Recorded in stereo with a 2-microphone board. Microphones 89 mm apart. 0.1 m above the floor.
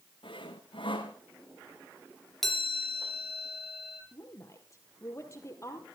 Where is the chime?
5° left (ahead or behind), 3 m.